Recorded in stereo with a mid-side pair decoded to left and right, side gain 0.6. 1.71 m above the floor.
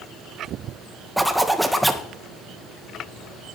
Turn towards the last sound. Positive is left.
turn(degrees=-5)